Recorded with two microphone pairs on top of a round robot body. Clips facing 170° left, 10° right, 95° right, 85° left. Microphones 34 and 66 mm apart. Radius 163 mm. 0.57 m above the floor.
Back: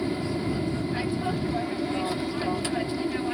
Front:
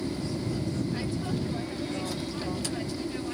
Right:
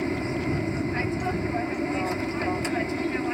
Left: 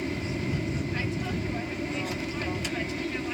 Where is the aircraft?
150° right.